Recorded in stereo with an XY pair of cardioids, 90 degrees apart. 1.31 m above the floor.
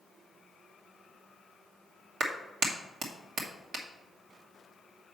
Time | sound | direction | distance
2.2 | a clap | 70° right | 1.2 m